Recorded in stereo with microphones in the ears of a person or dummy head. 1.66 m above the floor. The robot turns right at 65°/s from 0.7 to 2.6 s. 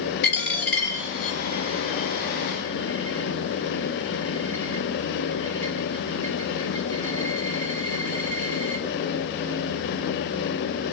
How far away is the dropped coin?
About 3.5 m.